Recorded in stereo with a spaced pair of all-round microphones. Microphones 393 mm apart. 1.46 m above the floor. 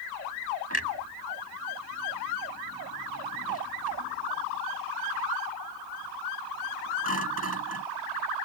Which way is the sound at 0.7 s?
40° right (ahead or behind).